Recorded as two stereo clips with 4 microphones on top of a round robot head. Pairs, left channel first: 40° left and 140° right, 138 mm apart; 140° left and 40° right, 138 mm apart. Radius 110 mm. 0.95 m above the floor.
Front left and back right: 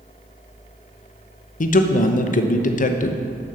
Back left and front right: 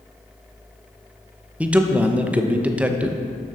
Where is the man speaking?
40° left, 0.8 m.